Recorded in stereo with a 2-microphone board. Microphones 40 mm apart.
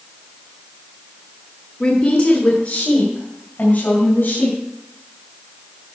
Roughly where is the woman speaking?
Left.